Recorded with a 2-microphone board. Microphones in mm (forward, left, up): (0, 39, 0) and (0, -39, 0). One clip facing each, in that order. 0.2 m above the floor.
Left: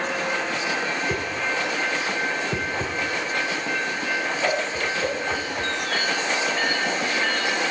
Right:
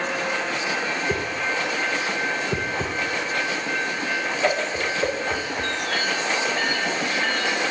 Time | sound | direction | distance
1.1 | a whoosh | 10° right (ahead or behind) | 1.1 m